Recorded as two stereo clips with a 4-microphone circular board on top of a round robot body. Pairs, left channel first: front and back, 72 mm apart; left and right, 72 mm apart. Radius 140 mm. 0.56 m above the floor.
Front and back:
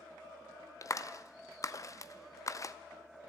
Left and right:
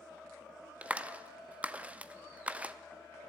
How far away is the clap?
About 0.7 m.